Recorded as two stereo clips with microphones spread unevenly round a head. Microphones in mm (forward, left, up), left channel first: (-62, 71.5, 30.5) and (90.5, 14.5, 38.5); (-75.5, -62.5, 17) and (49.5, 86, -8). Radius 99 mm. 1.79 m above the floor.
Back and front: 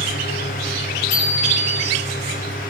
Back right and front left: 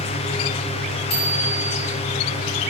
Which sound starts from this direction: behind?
A bicycle bell, at 1.1 s.